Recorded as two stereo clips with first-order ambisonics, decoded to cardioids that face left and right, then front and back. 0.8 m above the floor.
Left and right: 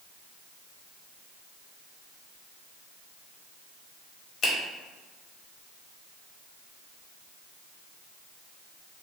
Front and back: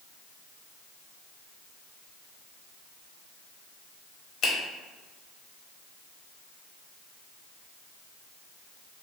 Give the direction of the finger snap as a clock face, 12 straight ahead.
11 o'clock.